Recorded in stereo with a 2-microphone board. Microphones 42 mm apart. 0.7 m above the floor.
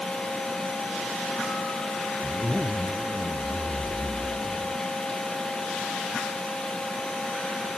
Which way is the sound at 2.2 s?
60° right (ahead or behind).